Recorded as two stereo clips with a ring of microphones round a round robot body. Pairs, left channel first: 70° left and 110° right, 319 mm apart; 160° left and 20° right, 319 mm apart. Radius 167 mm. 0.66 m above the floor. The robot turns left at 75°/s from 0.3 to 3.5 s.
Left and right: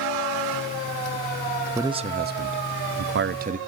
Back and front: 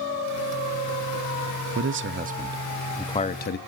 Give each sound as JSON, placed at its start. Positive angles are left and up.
{"t": 1.8, "sound": "a man speaking", "azimuth_deg": -35, "distance_m": 0.8}